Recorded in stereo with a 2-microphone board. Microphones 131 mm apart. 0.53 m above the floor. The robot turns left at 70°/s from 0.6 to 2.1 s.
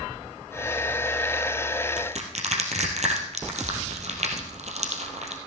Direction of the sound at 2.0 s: 75° right (ahead or behind).